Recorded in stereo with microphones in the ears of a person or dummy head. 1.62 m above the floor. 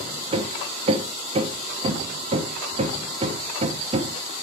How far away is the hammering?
About 1.1 m.